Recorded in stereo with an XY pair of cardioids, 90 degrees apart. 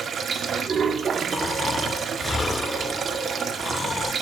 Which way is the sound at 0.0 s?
55° right.